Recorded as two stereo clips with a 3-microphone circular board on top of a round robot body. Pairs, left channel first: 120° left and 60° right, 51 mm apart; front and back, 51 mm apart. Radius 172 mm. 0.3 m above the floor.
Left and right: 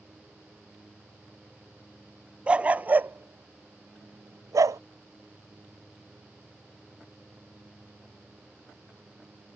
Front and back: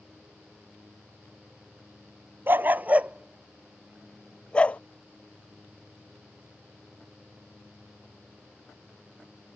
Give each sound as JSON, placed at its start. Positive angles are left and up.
{"t": 2.5, "sound": "a dog barking", "azimuth_deg": -130}